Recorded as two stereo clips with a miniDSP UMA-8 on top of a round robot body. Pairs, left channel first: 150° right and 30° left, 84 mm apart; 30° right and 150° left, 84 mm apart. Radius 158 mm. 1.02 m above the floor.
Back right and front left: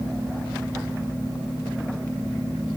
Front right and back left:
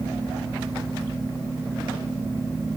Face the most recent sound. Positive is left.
No sound to turn to.